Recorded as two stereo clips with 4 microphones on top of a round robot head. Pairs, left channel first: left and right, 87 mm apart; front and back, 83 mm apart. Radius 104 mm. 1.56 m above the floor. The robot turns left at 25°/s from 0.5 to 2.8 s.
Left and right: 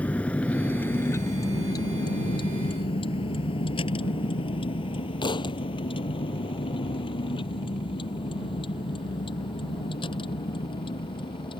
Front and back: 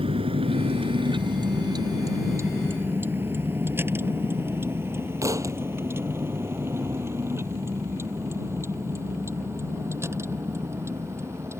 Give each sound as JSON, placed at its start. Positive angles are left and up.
{"t": 0.0, "sound": "a vehicle", "azimuth_deg": 165}
{"t": 5.2, "sound": "a thud", "azimuth_deg": 125}